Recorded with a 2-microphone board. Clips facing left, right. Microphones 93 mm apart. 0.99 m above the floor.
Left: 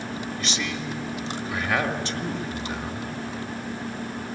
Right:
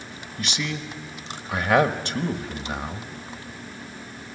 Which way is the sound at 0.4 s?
50° right (ahead or behind).